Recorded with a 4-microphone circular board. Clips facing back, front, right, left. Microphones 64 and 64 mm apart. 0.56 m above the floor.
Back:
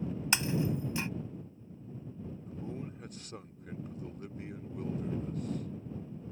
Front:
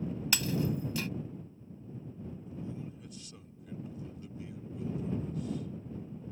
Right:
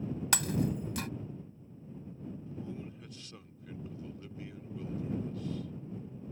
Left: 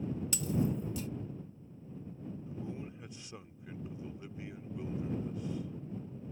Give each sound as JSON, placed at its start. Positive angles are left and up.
{"t": 0.3, "sound": "breaking glass", "azimuth_deg": -110}
{"t": 2.5, "sound": "a man speaking", "azimuth_deg": 155}